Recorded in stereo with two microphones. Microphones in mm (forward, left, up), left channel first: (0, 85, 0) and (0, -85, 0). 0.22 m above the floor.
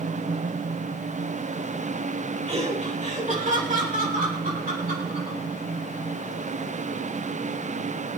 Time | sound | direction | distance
2.5 | laughter | 35° right (ahead or behind) | 2.5 m